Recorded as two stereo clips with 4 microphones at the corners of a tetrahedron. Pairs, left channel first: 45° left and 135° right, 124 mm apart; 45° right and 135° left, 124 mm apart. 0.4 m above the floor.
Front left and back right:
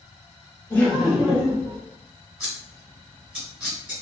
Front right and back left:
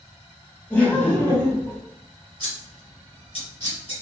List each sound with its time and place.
0.7 s laughter: 5° right, 1.3 m; by 1.8 s 105° right, 1.4 m
2.4 s scissors: 50° right, 1.9 m